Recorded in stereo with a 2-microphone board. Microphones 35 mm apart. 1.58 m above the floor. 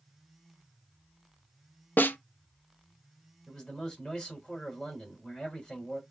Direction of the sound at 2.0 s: 60° left (ahead or behind).